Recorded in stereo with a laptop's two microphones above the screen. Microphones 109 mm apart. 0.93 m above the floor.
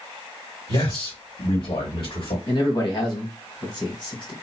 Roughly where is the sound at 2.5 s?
Left.